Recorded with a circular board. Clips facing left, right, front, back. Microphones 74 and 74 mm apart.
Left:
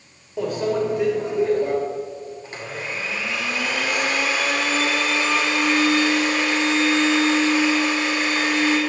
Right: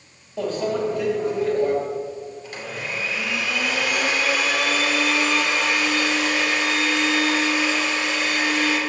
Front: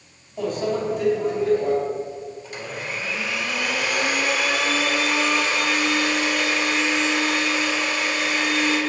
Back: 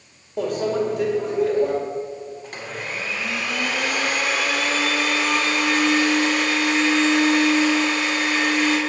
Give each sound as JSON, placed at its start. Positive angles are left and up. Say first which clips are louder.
{"t": 0.4, "sound": "a microwave", "louder": "left 1 dB, back 2 dB", "azimuth_deg": 165, "distance_m": 1.9}
{"t": 2.4, "sound": "a blender", "louder": "left 1 dB, even", "azimuth_deg": 150, "distance_m": 1.9}